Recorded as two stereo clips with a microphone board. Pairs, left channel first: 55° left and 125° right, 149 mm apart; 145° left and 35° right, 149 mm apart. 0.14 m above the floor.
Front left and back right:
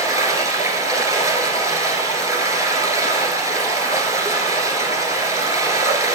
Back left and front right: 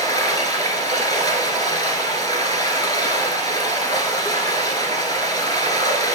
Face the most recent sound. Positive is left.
turn(degrees=-175)